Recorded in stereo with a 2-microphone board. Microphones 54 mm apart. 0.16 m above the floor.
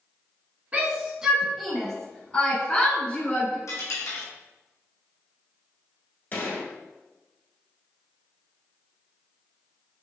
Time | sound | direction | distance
0.7 | a shout | 25° right (ahead or behind) | 1.3 m
3.7 | a dropped coin | 75° left (ahead or behind) | 1.6 m
6.3 | a gunshot | 40° left (ahead or behind) | 1.2 m